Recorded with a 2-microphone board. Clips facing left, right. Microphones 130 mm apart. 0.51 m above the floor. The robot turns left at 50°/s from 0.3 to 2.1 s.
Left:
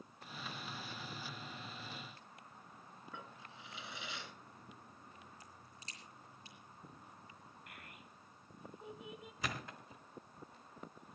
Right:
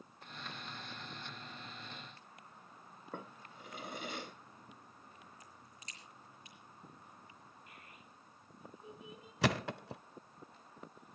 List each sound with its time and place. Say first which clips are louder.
3.1 s a drawer: right 6 dB; 50° right (ahead or behind), 1.4 m
5.4 s a crack: even; 30° left (ahead or behind), 5.5 m
7.7 s a child speaking: left 1 dB; 75° left (ahead or behind), 3 m
9.4 s a thud: right 11 dB; 80° right, 0.7 m